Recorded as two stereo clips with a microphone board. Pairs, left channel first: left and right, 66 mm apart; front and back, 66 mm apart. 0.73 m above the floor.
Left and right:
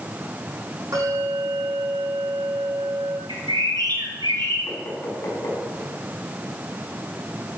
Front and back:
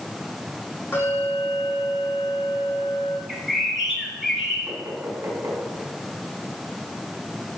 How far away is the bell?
About 6 m.